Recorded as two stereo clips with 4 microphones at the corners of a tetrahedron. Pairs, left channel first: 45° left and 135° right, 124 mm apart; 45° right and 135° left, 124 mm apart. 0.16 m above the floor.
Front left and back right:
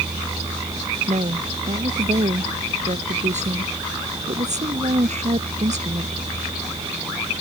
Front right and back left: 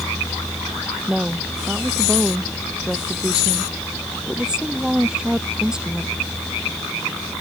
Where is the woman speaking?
140° right.